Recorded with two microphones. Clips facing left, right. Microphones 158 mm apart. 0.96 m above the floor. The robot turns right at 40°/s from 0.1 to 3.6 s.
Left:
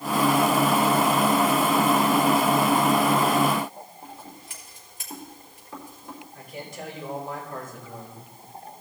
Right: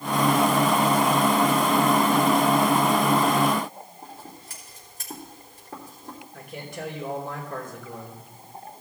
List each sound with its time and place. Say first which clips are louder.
4.0 s scissors: even; 40° right (ahead or behind), 3.5 m
6.3 s a man speaking: right 2 dB; 65° right (ahead or behind), 4 m